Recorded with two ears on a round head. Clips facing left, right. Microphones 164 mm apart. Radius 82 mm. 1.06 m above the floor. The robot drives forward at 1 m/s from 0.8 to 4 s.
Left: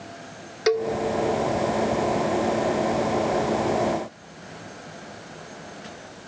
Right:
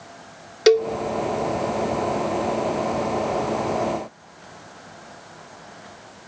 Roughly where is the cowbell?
Right.